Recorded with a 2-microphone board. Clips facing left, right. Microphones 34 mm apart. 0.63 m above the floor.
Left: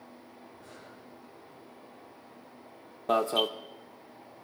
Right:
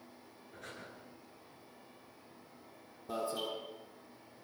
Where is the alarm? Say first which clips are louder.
Left 11 dB; 60° left (ahead or behind), 1.4 m.